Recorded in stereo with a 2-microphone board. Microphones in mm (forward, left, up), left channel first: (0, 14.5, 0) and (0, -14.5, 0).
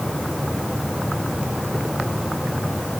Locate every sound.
Only background noise.